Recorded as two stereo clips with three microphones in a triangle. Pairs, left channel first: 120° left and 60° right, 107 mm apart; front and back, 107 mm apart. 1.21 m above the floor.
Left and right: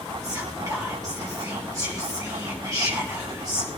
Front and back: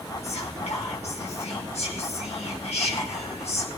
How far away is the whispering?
About 1.1 m.